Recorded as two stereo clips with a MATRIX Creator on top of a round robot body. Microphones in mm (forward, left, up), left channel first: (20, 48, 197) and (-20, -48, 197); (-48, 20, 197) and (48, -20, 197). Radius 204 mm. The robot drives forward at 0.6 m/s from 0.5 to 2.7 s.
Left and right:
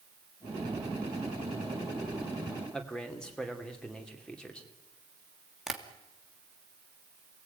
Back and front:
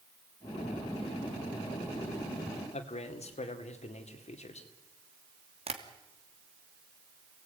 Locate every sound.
2.7 s a man speaking: 150° left, 2.5 m
5.7 s tapping: 25° right, 2.5 m